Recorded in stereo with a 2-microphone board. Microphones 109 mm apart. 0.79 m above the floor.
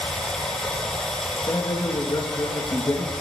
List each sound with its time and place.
0.0 s running water: 5° left (ahead or behind), 2.5 m
1.5 s a man speaking: 35° left (ahead or behind), 1.1 m